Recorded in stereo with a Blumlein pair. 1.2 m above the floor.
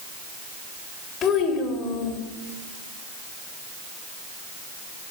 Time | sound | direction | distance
1.2 | a child speaking | 30° left | 3.5 m